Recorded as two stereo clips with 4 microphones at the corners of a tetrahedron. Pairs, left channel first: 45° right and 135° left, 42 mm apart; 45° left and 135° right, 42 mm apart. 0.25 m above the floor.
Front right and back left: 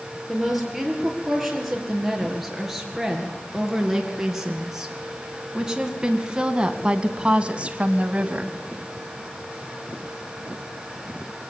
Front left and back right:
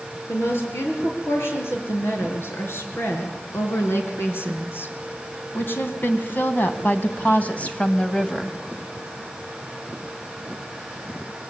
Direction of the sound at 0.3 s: 45° left.